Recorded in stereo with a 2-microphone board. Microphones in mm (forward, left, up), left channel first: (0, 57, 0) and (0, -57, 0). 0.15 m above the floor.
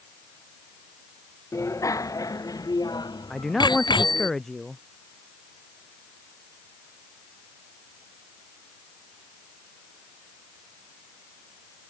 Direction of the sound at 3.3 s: 5° left (ahead or behind).